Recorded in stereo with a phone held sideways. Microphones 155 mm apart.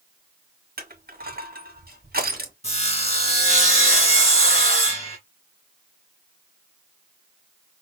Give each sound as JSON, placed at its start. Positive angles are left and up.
{"t": 0.8, "sound": "crushing", "side_deg": -75, "distance_m": 1.4}
{"t": 2.6, "sound": "sawing", "side_deg": 40, "distance_m": 2.5}